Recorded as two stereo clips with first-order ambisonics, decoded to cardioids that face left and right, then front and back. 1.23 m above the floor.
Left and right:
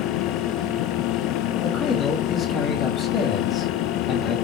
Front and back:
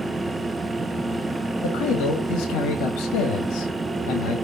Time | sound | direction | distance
1.6 | a man speaking | 25° left | 1.2 m